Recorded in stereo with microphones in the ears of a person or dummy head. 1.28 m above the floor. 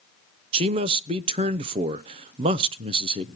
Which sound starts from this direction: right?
A man speaking, at 0.5 s.